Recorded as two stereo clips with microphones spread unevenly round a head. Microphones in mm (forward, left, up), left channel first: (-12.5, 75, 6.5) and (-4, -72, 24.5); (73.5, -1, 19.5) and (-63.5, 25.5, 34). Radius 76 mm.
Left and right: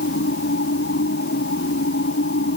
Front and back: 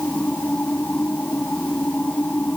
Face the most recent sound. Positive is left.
turn(degrees=70)